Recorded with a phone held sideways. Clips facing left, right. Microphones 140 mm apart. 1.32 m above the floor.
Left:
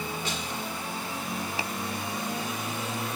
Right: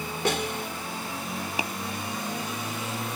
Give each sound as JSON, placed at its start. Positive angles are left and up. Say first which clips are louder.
{"t": 0.2, "sound": "a snare drum", "louder": "right 6 dB", "side_deg": -75}
{"t": 1.6, "sound": "tapping", "louder": "right 2 dB", "side_deg": -20}